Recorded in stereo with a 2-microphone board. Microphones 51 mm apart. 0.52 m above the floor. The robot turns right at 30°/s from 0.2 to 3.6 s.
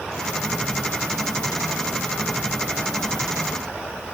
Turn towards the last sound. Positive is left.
No sound to turn to.